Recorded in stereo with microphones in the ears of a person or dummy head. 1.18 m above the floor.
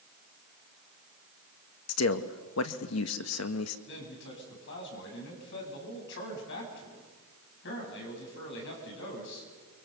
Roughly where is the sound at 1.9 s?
Left.